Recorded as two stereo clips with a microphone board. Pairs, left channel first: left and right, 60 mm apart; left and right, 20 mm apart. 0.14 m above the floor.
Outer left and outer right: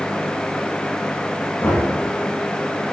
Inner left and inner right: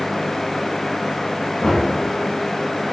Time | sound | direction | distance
1.6 | knocking | 50° left (ahead or behind) | 4 m